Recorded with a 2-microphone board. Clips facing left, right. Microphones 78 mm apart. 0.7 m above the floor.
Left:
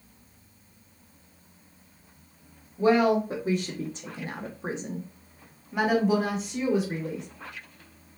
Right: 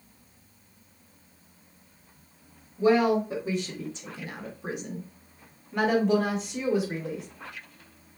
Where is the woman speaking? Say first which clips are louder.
Even; 45° left (ahead or behind), 1.8 m; by 7.2 s 5° right (ahead or behind), 3 m.